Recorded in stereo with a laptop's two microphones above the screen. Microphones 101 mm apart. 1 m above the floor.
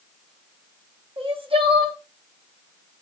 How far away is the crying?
About 0.6 m.